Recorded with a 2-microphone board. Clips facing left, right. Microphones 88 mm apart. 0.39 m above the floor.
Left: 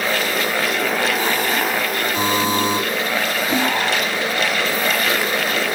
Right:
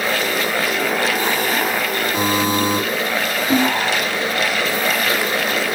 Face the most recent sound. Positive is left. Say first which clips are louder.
# right 4 dB
turn(degrees=-45)  # may be behind; listen again after turning